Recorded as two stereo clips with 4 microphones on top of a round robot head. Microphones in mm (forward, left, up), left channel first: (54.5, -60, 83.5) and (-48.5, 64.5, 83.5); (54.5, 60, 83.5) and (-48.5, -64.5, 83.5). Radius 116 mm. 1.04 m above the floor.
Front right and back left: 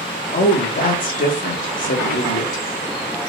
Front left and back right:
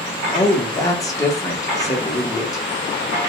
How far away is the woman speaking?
About 1.8 m.